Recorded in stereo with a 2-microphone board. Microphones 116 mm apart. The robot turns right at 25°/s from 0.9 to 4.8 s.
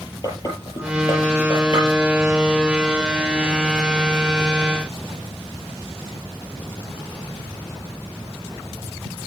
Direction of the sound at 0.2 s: 35° left (ahead or behind).